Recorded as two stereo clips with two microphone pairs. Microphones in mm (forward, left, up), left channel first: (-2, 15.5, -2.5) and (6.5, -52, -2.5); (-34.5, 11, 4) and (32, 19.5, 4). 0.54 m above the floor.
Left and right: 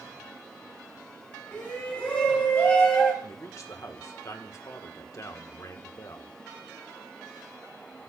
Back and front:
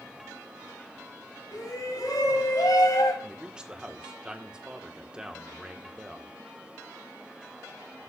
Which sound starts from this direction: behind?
A shout, at 1.5 s.